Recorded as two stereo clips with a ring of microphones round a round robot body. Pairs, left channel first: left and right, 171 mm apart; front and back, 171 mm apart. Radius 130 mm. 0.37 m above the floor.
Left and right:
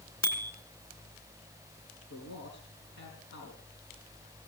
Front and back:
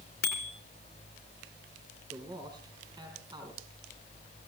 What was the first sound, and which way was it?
A bicycle bell, 20° left.